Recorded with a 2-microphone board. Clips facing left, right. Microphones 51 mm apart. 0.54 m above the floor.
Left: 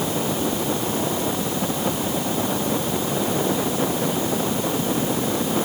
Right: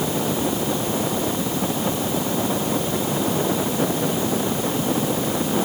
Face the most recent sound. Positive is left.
No sound to turn to.